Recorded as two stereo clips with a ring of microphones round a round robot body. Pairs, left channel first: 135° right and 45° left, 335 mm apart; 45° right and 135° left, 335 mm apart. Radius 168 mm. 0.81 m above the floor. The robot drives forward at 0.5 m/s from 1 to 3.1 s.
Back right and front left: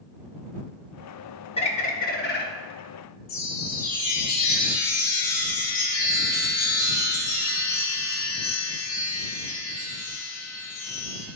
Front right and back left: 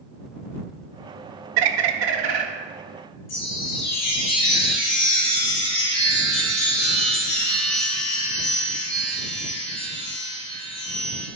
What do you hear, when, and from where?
1.6 s a bird: 150° left, 0.6 m; by 2.5 s 165° left, 1.0 m
3.3 s a chime: 105° right, 2.5 m